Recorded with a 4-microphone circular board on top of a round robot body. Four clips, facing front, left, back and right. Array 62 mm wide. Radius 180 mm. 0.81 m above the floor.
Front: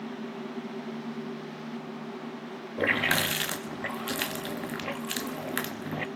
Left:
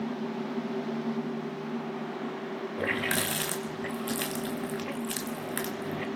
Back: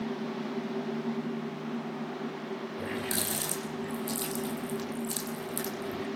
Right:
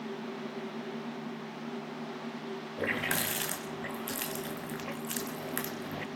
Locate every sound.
2.8 s a running tap: 5° left, 1.1 m